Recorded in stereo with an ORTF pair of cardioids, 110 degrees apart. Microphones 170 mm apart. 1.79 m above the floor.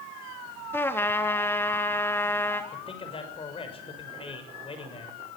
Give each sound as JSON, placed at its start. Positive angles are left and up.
{"t": 0.7, "sound": "a trumpet", "azimuth_deg": 15, "distance_m": 3.0}
{"t": 2.7, "sound": "a man speaking", "azimuth_deg": 35, "distance_m": 6.5}